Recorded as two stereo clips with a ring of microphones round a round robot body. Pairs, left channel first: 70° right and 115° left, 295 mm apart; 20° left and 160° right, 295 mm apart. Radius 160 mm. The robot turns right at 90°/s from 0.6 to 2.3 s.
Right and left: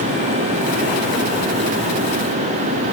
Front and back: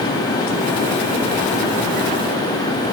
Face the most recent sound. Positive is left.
No sound to turn to.